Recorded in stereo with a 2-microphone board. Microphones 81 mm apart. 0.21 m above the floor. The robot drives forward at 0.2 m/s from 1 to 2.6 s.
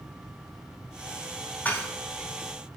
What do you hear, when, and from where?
1.6 s dishes clattering: 20° left (ahead or behind), 0.7 m